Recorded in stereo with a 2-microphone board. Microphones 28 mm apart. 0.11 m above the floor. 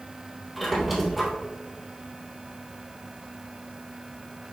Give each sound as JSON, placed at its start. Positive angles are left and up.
{"t": 0.6, "sound": "a squeak", "side_deg": -5, "distance_m": 1.8}